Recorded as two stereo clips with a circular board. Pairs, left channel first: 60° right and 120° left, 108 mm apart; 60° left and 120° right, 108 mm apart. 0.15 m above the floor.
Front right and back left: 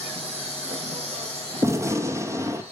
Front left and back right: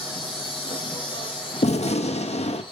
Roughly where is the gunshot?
Ahead left.